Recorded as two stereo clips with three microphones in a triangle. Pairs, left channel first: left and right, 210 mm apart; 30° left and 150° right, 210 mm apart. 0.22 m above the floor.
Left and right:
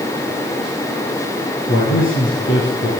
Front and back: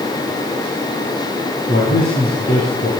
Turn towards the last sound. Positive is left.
turn(degrees=70)